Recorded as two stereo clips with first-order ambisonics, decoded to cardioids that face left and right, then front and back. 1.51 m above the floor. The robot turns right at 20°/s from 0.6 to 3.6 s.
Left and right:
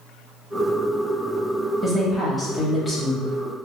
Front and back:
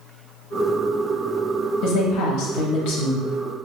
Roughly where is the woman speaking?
Ahead.